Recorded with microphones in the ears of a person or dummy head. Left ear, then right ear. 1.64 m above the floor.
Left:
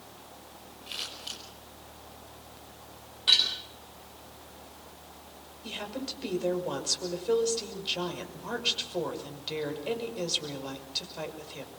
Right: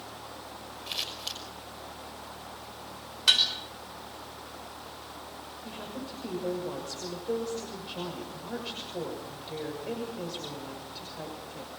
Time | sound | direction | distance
0.9 | scissors | 20° right (ahead or behind) | 5.5 m
3.3 | dishes clattering | 35° right (ahead or behind) | 4.5 m
5.6 | a woman speaking | 45° left (ahead or behind) | 6 m